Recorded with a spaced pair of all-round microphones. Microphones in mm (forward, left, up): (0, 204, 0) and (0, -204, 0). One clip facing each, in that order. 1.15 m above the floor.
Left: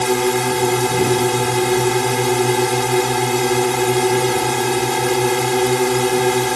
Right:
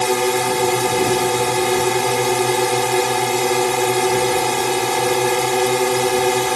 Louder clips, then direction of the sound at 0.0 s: Left 1 dB; 25° left (ahead or behind).